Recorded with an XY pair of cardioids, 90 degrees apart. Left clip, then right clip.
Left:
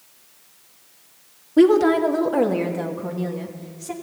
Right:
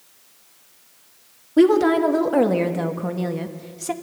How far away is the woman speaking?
About 2.5 m.